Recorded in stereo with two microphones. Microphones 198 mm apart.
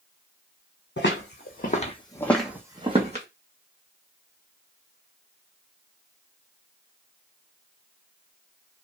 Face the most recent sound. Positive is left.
turn(degrees=-40)  # may be behind; listen again after turning